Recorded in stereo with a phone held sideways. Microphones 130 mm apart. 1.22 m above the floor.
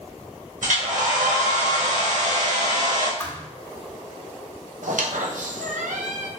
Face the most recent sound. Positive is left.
turn(degrees=-75)  # may be behind; listen again after turning